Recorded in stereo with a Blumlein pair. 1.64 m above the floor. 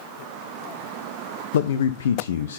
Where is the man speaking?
60° left, 0.5 m.